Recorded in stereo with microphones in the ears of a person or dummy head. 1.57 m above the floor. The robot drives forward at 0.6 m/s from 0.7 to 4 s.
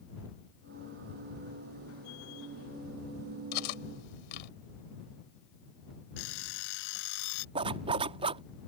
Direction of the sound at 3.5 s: 65° left (ahead or behind).